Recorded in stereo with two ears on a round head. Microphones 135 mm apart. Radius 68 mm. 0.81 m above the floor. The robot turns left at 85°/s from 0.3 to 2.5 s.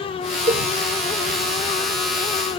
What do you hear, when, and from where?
0.5 s a cowbell: 45° right (ahead or behind); by 0.7 s 50° right (ahead or behind)